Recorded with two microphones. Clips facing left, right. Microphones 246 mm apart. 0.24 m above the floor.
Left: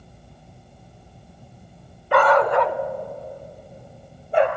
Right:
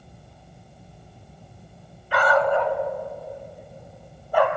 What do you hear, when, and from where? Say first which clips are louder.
2.1 s a dog barking: left 3 dB; 55° left (ahead or behind), 0.8 m; by 4.5 s 20° left (ahead or behind), 1.6 m